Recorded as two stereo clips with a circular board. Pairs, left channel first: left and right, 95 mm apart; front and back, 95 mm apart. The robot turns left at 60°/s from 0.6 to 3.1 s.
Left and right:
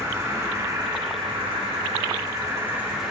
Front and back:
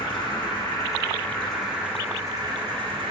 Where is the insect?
35° right, 5.5 m; by 3.1 s 175° left, 5.5 m.